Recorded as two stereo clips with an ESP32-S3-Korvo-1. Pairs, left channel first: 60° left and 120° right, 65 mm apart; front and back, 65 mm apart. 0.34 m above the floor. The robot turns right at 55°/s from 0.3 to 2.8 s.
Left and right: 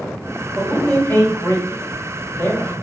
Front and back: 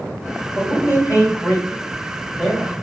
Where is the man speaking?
5° right, 2 m; by 2.7 s 115° left, 2 m.